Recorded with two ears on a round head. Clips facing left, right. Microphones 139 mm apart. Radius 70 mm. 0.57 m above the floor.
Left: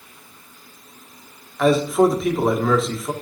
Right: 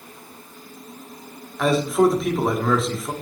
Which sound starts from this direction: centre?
A man speaking, at 1.6 s.